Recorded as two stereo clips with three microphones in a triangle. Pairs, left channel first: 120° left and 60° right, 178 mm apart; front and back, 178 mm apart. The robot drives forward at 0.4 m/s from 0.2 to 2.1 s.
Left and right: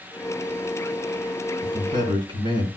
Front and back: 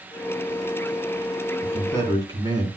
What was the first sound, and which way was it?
A man speaking, 110° right.